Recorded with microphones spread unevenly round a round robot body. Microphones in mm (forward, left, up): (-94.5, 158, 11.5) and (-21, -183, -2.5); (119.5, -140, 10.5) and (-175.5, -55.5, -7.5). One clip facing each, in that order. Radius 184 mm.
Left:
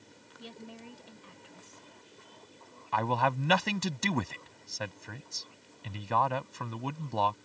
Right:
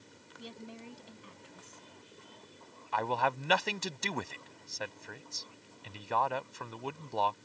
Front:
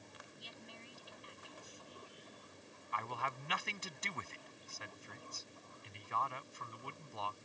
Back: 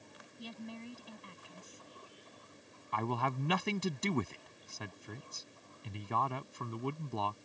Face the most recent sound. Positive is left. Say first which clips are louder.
# left 2 dB, back 11 dB
turn(degrees=110)